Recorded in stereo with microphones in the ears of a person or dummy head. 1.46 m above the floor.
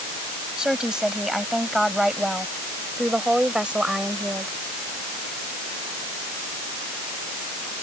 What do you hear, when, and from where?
0.6 s a woman speaking: centre (ahead or behind); by 4.6 s 5° right (ahead or behind)